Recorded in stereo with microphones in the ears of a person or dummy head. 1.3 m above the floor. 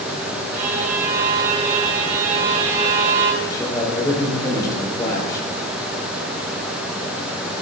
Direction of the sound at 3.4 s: 20° left (ahead or behind).